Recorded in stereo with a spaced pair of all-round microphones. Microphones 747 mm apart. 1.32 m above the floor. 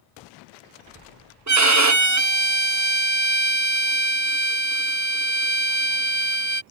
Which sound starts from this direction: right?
A violin, at 1.5 s.